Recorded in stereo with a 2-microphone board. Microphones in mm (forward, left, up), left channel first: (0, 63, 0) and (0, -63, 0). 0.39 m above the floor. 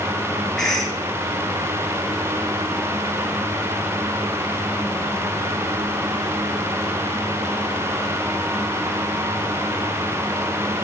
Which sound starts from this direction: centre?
A cough, at 0.6 s.